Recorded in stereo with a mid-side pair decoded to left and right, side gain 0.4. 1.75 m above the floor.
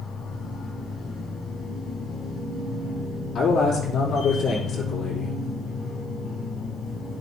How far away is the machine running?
About 5 m.